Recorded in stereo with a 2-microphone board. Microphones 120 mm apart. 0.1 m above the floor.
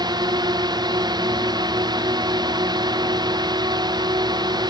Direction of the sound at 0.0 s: 35° right (ahead or behind).